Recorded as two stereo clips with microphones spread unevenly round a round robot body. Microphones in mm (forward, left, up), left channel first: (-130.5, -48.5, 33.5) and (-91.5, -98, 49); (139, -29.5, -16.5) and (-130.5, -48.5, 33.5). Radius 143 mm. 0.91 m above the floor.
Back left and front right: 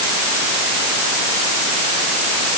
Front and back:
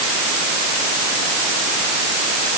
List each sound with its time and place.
Only background noise.